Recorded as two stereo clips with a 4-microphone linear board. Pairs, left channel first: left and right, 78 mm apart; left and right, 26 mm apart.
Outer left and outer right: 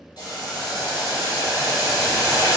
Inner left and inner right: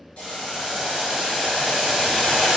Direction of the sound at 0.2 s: 60° left (ahead or behind).